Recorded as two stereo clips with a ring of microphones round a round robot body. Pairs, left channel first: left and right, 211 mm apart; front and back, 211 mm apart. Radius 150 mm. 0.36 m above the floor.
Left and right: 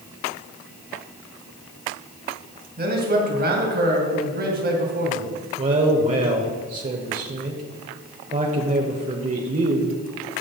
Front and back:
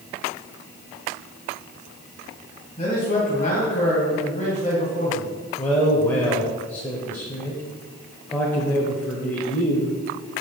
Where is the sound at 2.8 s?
60° right, 2.5 m.